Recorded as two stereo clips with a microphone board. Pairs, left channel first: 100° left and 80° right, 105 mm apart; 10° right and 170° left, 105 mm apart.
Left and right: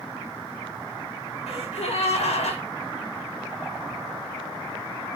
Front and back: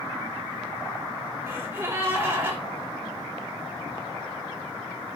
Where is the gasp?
105° left, 4.5 m.